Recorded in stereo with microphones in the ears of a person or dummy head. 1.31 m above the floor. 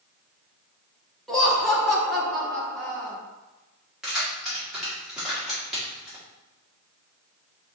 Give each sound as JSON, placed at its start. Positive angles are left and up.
{"t": 1.3, "sound": "laughter", "side_deg": 0, "distance_m": 0.7}
{"t": 4.0, "sound": "keys jangling", "side_deg": 0, "distance_m": 1.5}